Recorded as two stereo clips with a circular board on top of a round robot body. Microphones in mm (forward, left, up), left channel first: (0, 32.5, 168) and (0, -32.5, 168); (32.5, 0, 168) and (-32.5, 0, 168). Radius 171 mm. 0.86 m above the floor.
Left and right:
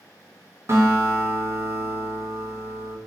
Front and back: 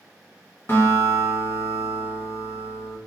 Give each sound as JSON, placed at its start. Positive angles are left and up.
{"t": 0.7, "sound": "a guitar", "azimuth_deg": -50, "distance_m": 1.1}